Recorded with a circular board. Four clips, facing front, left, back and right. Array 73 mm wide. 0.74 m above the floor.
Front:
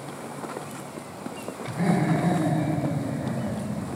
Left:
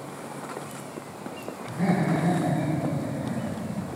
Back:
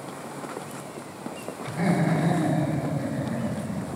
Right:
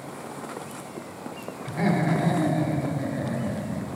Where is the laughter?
110° right, 2 m; by 3.9 s 125° right, 0.7 m.